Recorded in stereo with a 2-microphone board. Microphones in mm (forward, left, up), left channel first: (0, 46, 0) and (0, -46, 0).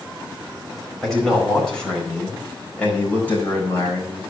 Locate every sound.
1.0 s a man speaking: 5° left (ahead or behind), 5 m; by 4.2 s 25° left (ahead or behind), 4.5 m